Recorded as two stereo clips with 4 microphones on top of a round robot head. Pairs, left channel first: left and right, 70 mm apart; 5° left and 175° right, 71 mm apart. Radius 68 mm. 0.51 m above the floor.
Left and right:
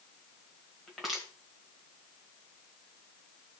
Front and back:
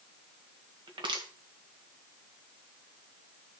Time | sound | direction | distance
0.9 | crushing | straight behind | 2.0 m